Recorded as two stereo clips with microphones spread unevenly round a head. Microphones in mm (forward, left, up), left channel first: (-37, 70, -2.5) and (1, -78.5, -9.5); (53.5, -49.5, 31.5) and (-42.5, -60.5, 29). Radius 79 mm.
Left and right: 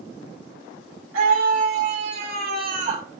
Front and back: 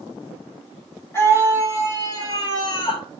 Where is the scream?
60° right, 3 m; by 3.1 s 20° right, 1.9 m.